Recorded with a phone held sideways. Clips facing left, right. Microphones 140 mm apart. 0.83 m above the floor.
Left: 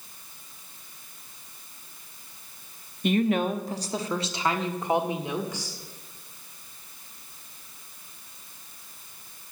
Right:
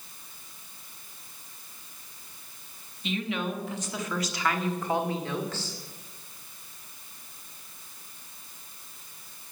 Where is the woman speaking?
55° left (ahead or behind), 0.9 m; by 5.8 s 15° left (ahead or behind), 2 m.